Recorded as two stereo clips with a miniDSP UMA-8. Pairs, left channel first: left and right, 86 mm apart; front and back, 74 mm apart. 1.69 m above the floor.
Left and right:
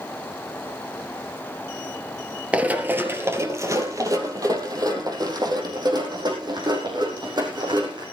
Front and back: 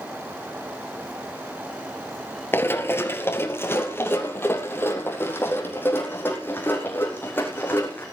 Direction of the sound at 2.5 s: 30° right.